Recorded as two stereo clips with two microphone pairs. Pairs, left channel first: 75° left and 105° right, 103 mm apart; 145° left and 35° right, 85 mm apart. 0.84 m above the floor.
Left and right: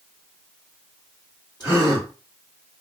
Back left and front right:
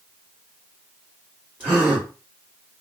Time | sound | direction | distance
1.6 | a gasp | 30° left | 2.5 m